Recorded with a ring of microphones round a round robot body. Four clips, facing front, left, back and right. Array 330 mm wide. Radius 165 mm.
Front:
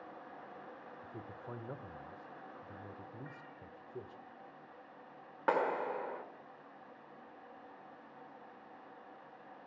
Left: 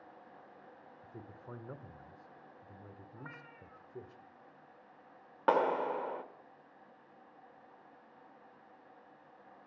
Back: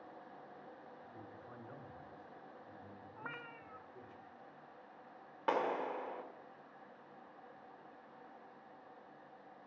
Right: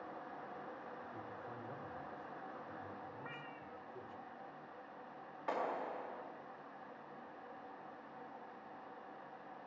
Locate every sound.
1.0 s a man speaking: 35° left, 1.7 m
3.2 s a cat meowing: 170° right, 1.5 m
5.5 s a clap: 70° left, 1.7 m